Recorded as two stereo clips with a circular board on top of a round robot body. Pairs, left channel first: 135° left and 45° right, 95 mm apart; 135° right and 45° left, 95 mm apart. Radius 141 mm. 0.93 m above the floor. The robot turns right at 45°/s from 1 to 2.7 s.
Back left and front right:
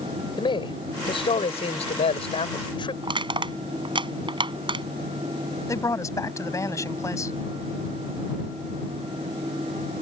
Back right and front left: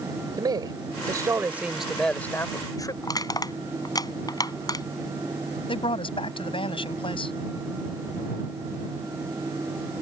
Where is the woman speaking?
165° right.